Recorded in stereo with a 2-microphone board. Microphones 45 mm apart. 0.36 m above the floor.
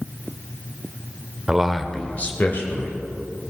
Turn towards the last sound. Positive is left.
turn(degrees=55)  # may be behind; listen again after turning